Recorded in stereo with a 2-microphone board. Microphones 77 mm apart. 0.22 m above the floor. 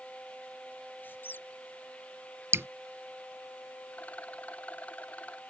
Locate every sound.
1.0 s a squeak: 25° left (ahead or behind)
2.5 s dripping: 35° right (ahead or behind)
3.9 s a rattle: 20° left (ahead or behind)